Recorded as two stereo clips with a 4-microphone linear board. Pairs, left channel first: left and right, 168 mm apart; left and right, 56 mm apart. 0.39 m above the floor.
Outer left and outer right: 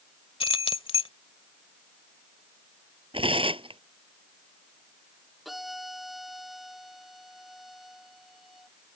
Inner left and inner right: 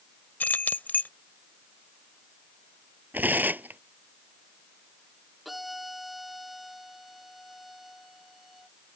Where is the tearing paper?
30° right (ahead or behind).